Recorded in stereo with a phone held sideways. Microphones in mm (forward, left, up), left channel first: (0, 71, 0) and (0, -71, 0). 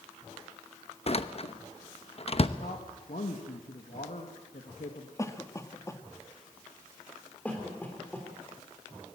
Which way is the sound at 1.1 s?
45° left (ahead or behind).